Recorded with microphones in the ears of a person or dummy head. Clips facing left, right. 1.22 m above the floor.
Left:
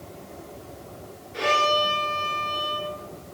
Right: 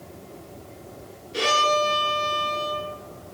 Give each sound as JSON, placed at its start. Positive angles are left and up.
{"t": 1.3, "sound": "a violin", "side_deg": -50, "distance_m": 6.5}